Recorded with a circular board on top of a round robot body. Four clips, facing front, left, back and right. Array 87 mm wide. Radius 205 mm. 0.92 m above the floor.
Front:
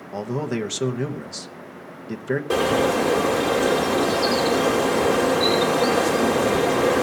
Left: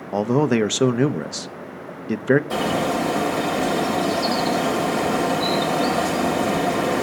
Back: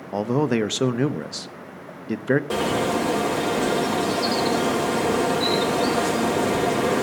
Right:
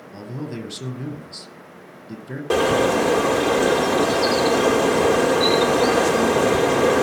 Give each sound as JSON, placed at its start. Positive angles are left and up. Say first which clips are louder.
{"t": 0.1, "sound": "a man speaking", "louder": "left 14 dB, back 5 dB", "azimuth_deg": 110, "distance_m": 0.8}
{"t": 2.5, "sound": "a bird", "louder": "right 4 dB, front 3 dB", "azimuth_deg": -85, "distance_m": 4.5}